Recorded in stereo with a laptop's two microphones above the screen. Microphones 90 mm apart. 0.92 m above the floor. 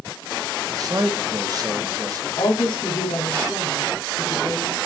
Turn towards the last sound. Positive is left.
turn(degrees=75)  # may be behind; listen again after turning